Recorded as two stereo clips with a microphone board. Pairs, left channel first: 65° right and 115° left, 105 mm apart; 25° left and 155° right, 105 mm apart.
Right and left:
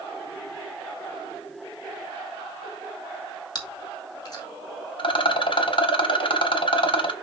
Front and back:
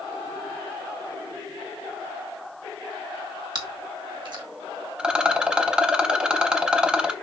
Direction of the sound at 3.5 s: 115° right.